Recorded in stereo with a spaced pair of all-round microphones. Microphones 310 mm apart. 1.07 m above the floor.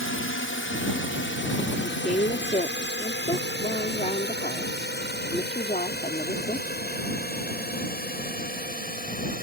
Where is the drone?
40° left (ahead or behind); by 9.4 s 30° left (ahead or behind).